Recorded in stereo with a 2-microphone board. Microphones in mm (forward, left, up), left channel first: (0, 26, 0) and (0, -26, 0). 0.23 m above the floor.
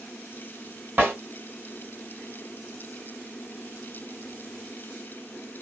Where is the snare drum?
35° right (ahead or behind), 1.9 m.